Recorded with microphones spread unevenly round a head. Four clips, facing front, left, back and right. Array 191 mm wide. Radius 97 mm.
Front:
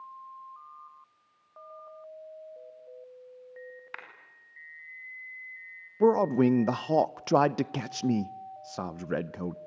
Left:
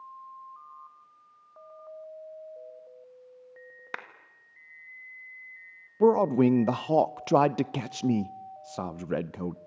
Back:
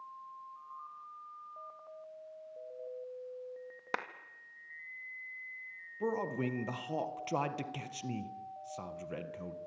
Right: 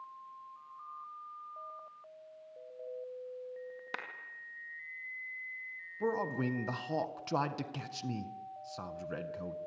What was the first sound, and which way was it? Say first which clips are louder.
A clap: left 4 dB, back 9 dB; 175° left.